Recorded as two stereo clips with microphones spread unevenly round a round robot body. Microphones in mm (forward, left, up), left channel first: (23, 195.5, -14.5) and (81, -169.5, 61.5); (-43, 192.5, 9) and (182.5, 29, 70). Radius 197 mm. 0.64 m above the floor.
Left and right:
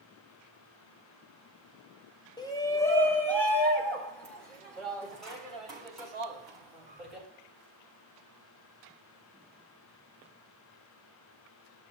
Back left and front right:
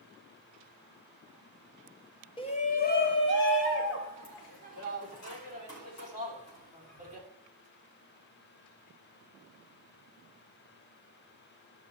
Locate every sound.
2.4 s a shout: 140° left, 0.7 m; by 7.3 s 175° right, 4 m